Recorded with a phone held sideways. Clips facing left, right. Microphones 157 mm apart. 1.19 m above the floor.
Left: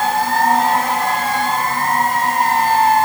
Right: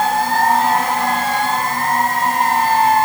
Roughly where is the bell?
No bell in this recording.